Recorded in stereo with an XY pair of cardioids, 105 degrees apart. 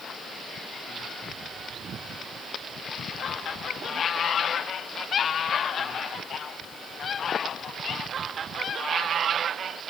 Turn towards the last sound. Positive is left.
No sound to turn to.